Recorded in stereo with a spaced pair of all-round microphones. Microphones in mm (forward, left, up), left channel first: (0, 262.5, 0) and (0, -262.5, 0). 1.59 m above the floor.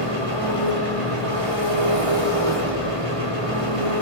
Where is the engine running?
70° right (ahead or behind), 4 m.